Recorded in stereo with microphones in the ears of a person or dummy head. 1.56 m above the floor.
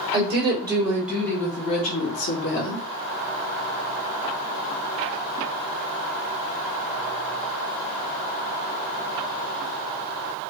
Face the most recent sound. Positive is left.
turn(degrees=70)  # may be behind; listen again after turning